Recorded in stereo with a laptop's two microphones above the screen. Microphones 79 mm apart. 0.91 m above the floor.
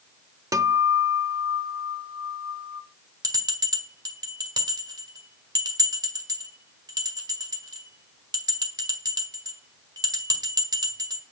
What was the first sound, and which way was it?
A guitar, 45° right (ahead or behind).